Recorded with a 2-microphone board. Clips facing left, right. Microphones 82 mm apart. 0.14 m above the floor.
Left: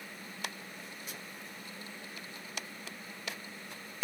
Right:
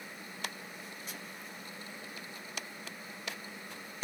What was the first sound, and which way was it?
Only background noise.